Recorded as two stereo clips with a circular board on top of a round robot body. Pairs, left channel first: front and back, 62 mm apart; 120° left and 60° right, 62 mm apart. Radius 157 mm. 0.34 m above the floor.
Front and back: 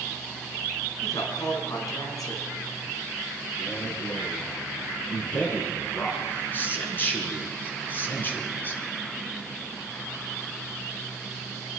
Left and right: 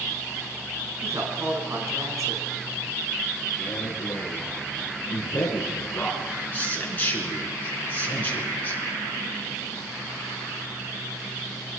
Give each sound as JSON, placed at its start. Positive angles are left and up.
{"t": 1.0, "sound": "a woman speaking", "azimuth_deg": -20, "distance_m": 6.5}
{"t": 3.6, "sound": "a man speaking", "azimuth_deg": 60, "distance_m": 5.5}